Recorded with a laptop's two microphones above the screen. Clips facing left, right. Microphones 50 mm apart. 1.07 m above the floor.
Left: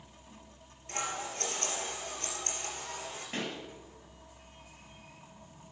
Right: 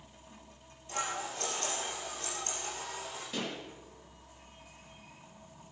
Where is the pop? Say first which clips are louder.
Even; 45° left (ahead or behind), 1.8 m.